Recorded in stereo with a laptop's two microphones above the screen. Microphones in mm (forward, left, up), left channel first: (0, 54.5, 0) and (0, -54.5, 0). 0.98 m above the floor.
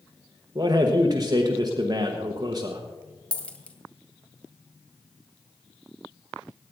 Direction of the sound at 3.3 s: 10° left (ahead or behind).